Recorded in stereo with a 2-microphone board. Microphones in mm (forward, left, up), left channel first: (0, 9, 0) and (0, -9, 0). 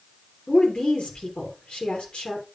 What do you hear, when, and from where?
0.5 s a woman speaking: 70° left (ahead or behind), 3 m